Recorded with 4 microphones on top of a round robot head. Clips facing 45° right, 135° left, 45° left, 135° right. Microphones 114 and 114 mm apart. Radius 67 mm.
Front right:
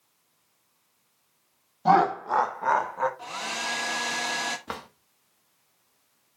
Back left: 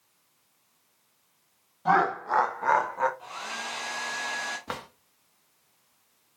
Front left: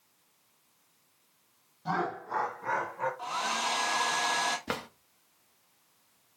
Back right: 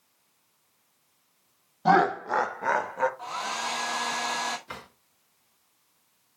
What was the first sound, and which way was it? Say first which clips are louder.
Laughter: front right 3 dB, back right 11 dB; 105° right.